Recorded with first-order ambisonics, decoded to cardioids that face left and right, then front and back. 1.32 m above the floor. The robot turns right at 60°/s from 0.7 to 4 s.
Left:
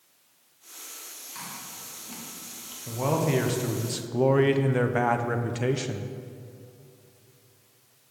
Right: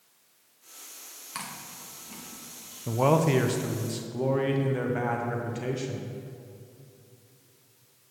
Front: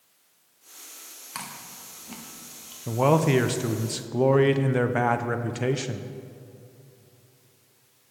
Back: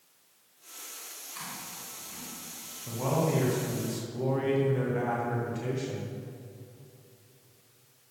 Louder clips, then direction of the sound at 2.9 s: Right 3 dB, front 8 dB; 40° right.